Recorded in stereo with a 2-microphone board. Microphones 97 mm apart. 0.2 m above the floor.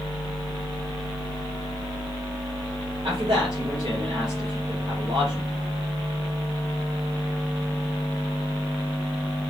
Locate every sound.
3.0 s a man speaking: 50° right (ahead or behind), 3 m